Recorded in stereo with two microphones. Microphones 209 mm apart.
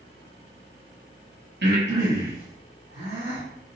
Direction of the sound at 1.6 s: 55° right (ahead or behind).